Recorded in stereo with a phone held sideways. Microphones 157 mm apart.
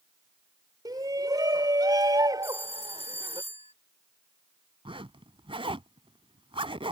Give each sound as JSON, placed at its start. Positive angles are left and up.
{"t": 0.8, "sound": "a shout", "side_deg": -20}
{"t": 2.4, "sound": "a phone ringing", "side_deg": 35}
{"t": 4.8, "sound": "a zipper", "side_deg": -35}